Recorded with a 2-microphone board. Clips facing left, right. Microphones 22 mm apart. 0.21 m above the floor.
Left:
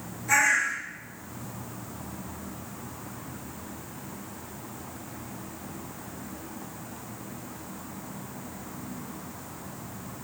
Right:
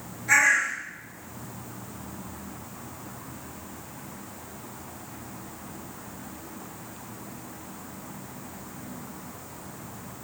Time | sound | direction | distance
0.3 | a bird | 25° right (ahead or behind) | 3 m